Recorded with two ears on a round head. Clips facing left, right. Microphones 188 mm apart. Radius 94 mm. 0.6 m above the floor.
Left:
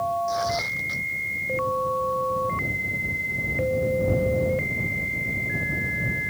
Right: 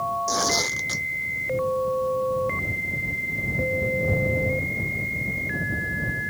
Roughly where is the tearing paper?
Right.